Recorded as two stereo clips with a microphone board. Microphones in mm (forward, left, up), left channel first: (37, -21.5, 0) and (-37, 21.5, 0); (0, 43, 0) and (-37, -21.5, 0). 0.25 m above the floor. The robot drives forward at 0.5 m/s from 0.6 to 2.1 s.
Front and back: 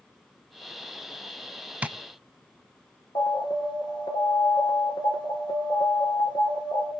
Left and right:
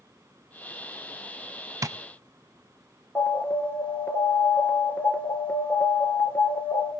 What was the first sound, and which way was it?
Tapping, 140° right.